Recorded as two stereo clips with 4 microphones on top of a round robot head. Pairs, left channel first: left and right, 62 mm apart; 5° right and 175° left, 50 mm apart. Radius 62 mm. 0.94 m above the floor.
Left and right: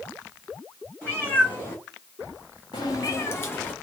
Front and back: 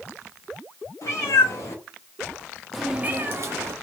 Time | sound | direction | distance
1.0 | a cat meowing | 20° left | 1.3 m